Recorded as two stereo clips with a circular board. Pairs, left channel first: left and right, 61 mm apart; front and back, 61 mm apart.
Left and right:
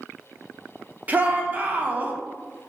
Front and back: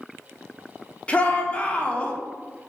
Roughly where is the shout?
Ahead right.